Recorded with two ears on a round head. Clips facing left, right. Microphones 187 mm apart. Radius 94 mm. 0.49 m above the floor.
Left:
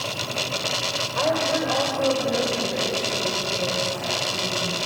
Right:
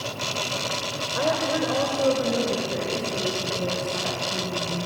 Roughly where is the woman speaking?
Right.